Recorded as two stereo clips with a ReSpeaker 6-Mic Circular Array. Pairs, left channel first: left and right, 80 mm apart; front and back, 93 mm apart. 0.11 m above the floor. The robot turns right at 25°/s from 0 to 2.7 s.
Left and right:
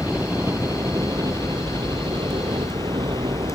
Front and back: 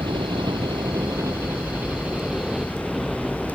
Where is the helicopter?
155° right; by 3.6 s 95° right.